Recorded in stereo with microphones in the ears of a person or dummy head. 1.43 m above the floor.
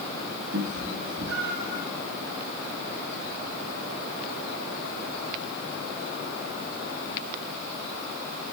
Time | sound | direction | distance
0.5 | a cat meowing | 65° right (ahead or behind) | 4.5 m